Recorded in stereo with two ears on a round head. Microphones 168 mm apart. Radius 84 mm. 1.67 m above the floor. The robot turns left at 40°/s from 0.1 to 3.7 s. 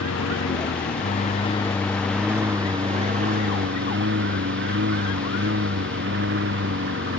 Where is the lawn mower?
80° left; by 7.2 s 60° right (ahead or behind).